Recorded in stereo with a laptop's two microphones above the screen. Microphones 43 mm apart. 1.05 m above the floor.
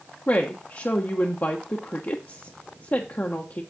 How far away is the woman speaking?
About 0.9 m.